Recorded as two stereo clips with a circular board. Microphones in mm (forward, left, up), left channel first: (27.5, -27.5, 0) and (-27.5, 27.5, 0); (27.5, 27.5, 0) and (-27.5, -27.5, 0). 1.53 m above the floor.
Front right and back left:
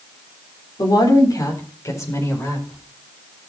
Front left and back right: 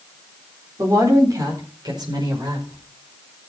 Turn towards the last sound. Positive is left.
turn(degrees=-105)